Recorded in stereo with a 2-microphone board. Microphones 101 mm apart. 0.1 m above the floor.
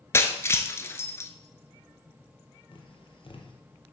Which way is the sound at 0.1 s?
25° left (ahead or behind).